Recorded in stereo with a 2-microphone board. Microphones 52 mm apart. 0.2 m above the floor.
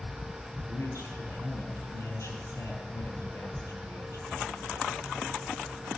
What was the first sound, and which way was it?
A man speaking, 70° left (ahead or behind).